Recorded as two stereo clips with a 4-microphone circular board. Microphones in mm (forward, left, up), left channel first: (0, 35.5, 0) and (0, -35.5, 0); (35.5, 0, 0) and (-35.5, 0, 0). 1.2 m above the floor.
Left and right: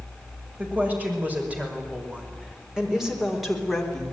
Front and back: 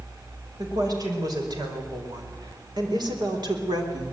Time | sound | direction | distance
0.6 | a woman speaking | 155° right | 6 m